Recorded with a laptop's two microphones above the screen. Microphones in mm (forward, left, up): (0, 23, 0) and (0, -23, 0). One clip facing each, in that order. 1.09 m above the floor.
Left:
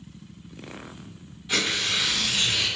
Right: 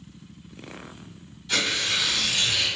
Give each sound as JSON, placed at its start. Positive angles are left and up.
{"t": 1.5, "sound": "tearing paper", "side_deg": 15, "distance_m": 1.3}